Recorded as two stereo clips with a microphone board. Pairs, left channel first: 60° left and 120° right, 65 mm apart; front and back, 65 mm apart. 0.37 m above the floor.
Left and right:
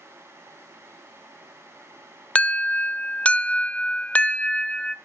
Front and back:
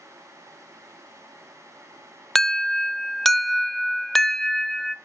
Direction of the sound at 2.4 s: 80° left.